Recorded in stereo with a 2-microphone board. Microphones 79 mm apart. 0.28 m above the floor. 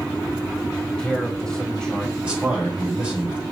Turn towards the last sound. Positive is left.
turn(degrees=-15)  # may be behind; listen again after turning